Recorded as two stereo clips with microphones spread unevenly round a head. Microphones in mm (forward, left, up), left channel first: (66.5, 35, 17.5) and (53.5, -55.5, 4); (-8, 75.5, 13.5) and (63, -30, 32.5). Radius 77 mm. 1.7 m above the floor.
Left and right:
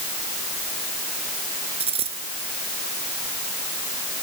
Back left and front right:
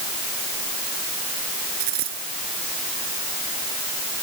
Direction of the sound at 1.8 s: 85° right.